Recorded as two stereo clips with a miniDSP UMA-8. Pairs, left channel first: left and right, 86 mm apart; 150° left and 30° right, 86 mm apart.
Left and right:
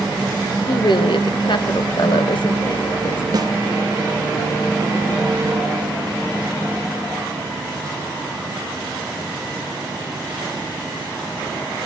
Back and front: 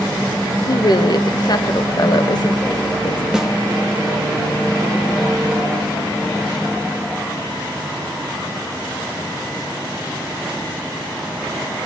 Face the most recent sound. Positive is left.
turn(degrees=-110)